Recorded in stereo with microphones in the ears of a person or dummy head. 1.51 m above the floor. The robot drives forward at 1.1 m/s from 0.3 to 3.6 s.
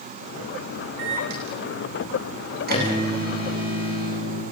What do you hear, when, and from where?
1.0 s a microwave: 60° right (ahead or behind), 8.5 m; by 4.4 s 45° right (ahead or behind), 10 m